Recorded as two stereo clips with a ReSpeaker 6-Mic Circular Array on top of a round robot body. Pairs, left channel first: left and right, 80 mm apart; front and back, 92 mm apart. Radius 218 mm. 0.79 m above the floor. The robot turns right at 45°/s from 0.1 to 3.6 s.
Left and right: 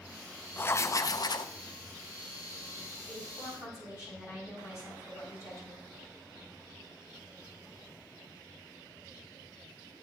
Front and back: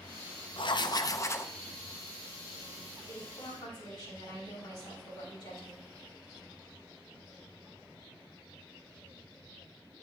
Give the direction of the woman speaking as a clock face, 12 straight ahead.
11 o'clock.